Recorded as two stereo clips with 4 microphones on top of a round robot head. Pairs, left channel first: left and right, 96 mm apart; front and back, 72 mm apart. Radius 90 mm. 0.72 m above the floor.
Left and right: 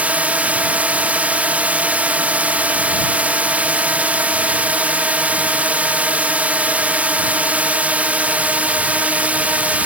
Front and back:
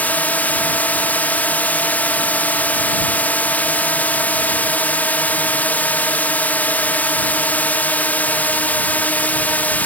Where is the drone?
35° right.